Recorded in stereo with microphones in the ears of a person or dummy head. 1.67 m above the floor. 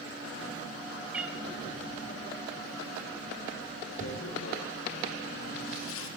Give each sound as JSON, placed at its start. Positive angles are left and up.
{"t": 1.1, "sound": "a cat meowing", "side_deg": -5, "distance_m": 5.0}
{"t": 4.0, "sound": "tearing paper", "side_deg": 80, "distance_m": 4.0}